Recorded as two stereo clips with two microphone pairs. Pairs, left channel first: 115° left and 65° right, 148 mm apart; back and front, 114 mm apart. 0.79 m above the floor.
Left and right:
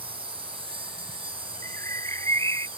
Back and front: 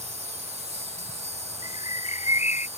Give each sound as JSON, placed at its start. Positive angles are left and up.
{"t": 0.0, "sound": "an insect", "azimuth_deg": -15}
{"t": 1.6, "sound": "a bird", "azimuth_deg": -175}